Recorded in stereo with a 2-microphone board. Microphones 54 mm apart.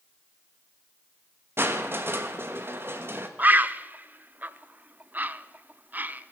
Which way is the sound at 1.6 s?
50° right (ahead or behind).